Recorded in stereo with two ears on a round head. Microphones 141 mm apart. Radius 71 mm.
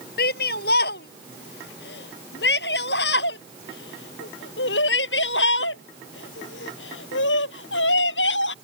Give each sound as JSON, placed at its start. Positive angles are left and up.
{"t": 0.2, "sound": "a shout", "side_deg": 70}